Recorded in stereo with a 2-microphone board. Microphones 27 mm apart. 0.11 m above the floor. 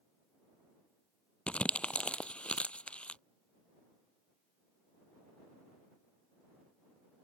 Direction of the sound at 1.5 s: 50° left (ahead or behind).